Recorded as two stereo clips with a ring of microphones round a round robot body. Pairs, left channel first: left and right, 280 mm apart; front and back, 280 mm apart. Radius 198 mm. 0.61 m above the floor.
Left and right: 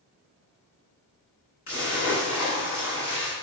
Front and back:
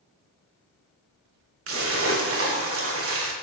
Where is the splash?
135° left, 0.5 m.